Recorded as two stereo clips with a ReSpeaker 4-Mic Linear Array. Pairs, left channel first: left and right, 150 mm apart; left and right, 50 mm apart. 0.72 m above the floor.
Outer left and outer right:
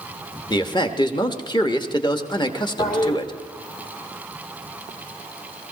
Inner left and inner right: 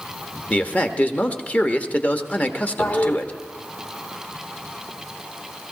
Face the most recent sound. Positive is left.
turn(degrees=55)  # may be behind; listen again after turning